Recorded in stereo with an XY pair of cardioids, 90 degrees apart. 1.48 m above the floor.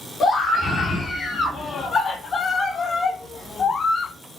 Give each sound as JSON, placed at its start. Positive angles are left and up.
{"t": 0.2, "sound": "a scream", "azimuth_deg": 50, "distance_m": 4.5}